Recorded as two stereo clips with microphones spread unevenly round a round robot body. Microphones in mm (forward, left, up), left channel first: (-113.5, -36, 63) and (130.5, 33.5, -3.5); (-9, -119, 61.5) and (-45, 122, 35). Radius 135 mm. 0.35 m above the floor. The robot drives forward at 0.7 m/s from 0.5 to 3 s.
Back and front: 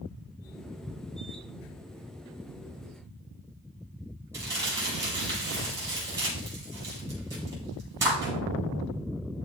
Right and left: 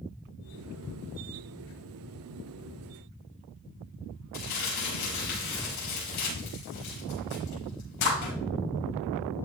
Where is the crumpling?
60° right, 6 m.